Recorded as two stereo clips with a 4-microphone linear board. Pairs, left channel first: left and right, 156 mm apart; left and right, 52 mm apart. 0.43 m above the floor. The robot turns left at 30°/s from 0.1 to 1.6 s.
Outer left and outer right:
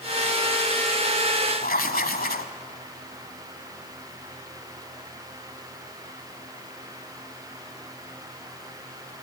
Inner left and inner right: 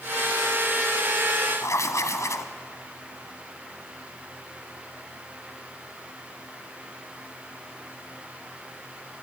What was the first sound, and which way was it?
Writing, 75° left (ahead or behind).